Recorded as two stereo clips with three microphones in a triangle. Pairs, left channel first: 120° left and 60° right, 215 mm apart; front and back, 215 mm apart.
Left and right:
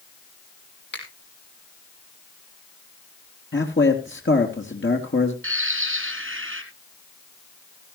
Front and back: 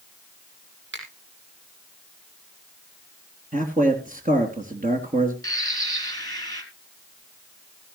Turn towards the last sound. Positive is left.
turn(degrees=-70)